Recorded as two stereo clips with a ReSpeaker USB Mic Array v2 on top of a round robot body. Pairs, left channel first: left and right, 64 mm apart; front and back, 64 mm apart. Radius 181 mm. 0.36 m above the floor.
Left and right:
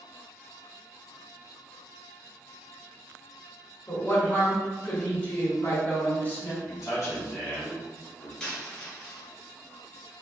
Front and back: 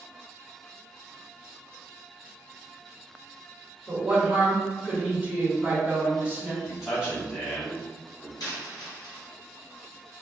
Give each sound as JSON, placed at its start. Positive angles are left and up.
{"t": 3.9, "sound": "a woman speaking", "azimuth_deg": 130, "distance_m": 1.6}
{"t": 6.6, "sound": "a man speaking", "azimuth_deg": 85, "distance_m": 1.5}
{"t": 8.4, "sound": "a dropped coin", "azimuth_deg": 15, "distance_m": 1.5}